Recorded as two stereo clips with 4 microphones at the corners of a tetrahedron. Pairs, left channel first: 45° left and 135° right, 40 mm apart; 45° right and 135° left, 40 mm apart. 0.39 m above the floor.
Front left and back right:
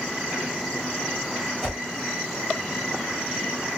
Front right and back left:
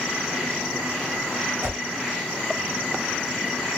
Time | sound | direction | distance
1.6 | a whoosh | 135° left | 1.6 m